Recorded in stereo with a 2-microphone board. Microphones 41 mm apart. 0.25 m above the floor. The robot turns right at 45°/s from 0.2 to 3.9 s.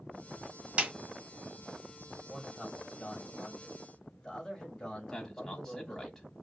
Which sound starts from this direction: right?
A snare drum, at 0.8 s.